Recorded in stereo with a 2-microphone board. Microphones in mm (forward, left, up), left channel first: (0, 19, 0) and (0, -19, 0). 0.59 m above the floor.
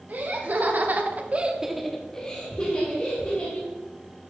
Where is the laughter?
55° right (ahead or behind), 2.0 m; by 3.7 s 35° left (ahead or behind), 3 m.